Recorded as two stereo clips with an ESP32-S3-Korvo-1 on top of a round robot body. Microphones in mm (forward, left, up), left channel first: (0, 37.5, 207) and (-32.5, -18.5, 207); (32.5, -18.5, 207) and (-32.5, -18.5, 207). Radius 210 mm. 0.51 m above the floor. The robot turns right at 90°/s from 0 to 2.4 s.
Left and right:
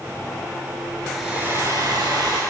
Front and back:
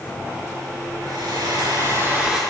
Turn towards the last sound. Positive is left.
turn(degrees=-95)